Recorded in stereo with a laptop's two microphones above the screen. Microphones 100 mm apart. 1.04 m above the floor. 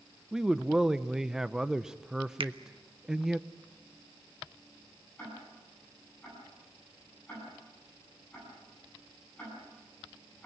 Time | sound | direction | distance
0.3 | a man speaking | 5° right (ahead or behind) | 0.7 m
2.4 | a finger snap | 65° right (ahead or behind) | 0.8 m
5.2 | ticking | 15° left (ahead or behind) | 9.5 m